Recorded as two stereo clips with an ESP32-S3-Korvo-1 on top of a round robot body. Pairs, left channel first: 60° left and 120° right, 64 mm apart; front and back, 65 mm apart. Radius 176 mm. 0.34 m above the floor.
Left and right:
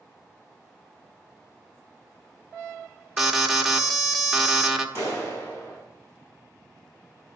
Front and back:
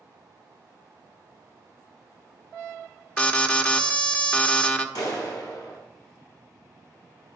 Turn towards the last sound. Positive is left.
turn(degrees=10)